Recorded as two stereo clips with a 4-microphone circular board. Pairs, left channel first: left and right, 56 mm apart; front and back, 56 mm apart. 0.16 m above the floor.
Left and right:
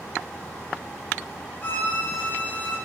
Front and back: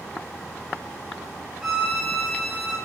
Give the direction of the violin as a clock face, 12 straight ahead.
8 o'clock.